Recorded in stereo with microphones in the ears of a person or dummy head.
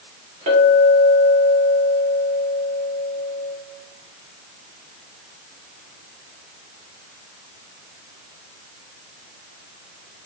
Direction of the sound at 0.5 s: 40° right (ahead or behind).